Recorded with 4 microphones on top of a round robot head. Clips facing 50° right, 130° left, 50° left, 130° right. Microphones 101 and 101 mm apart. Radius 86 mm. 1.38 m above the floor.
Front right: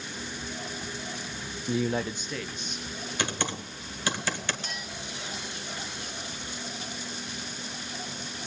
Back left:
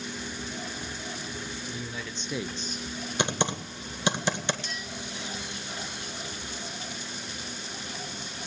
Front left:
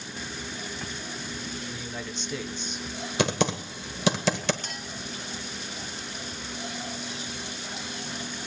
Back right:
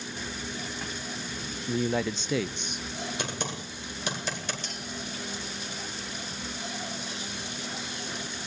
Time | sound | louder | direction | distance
1.7 | a man speaking | front right 9 dB, back right 9 dB | 70° right | 0.7 m
3.2 | typing on a keyboard | back left 4 dB, front left 9 dB | 60° left | 1.7 m
4.6 | a clink | even, front left 1 dB | straight ahead | 1.3 m